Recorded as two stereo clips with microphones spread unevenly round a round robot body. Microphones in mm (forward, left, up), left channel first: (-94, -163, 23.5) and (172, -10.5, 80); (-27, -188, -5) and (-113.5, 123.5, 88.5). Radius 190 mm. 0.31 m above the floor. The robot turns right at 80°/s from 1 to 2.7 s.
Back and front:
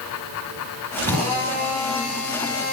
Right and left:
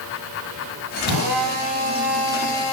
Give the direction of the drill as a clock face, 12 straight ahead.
8 o'clock.